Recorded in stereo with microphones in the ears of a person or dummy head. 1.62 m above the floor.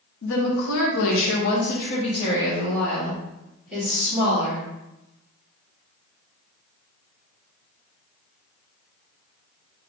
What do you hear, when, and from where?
0.2 s a woman speaking: 70° left (ahead or behind), 1.3 m; by 4.7 s 10° right (ahead or behind), 2.5 m